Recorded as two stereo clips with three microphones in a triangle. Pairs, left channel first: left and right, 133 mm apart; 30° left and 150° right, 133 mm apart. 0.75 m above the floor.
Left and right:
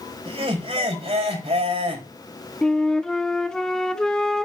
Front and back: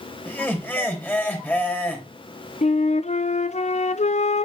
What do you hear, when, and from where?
0.2 s laughter: 45° right, 3 m
2.6 s a flute: 5° left, 0.6 m